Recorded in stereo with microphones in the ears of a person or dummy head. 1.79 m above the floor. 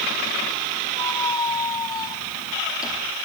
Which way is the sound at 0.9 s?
20° left (ahead or behind).